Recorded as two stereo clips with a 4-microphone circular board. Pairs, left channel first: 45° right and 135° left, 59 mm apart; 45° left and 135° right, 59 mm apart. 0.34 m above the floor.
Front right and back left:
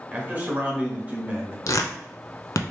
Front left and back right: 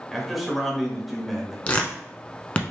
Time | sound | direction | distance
0.1 | a man speaking | 140° left | 1.1 m
1.7 | tearing paper | 20° right | 0.6 m